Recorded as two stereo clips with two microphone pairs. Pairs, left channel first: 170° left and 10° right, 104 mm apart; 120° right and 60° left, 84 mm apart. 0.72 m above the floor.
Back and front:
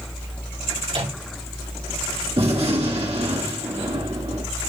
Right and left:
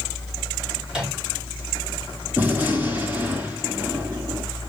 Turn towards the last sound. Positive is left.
turn(degrees=-5)